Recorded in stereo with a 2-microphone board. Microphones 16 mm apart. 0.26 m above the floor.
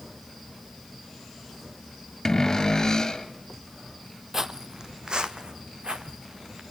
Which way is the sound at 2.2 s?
35° left (ahead or behind).